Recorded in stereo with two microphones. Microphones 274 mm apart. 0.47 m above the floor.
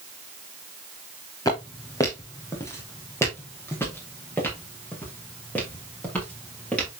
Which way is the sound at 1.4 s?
15° left (ahead or behind).